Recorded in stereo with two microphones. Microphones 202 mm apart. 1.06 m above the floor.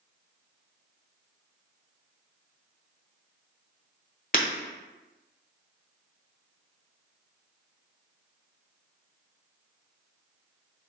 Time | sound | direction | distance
4.3 | breaking glass | 45° left (ahead or behind) | 1.1 m